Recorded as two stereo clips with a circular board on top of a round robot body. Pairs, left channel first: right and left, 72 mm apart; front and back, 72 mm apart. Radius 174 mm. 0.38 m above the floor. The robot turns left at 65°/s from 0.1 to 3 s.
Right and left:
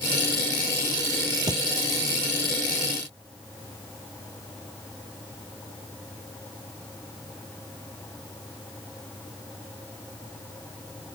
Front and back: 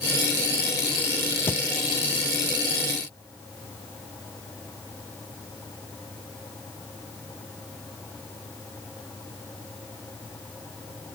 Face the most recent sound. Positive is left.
turn(degrees=-40)